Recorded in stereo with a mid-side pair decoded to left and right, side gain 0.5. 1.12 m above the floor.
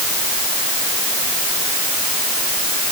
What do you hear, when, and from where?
Only background noise.